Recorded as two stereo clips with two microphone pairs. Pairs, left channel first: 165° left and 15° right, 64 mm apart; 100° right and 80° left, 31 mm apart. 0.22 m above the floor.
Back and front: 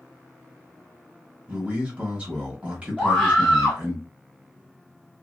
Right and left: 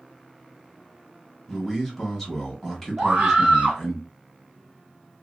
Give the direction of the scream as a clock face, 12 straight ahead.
10 o'clock.